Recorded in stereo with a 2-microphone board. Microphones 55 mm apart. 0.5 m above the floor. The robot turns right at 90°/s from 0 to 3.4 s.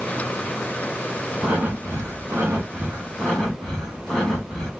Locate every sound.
1.4 s breathing: 160° right, 1.6 m; by 4.7 s 15° left, 1.6 m